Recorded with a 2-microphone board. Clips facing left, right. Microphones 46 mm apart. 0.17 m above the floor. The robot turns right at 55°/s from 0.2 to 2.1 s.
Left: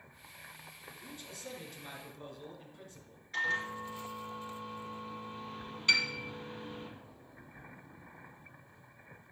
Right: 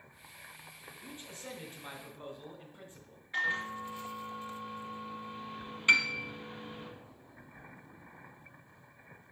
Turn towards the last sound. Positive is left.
turn(degrees=-30)  # may be behind; listen again after turning